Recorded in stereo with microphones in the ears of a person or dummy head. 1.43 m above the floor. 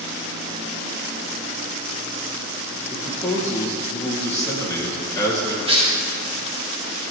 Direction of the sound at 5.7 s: 30° right (ahead or behind).